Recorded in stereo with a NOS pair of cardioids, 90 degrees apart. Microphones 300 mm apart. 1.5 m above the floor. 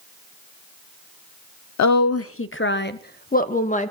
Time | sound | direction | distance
1.8 | a woman speaking | 70° left | 0.9 m